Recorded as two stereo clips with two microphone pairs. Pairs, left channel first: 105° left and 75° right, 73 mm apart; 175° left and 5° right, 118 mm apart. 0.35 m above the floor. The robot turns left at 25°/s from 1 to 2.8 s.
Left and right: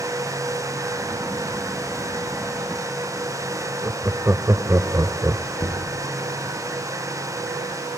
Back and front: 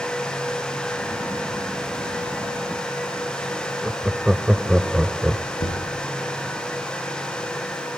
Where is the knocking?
155° left, 5 m.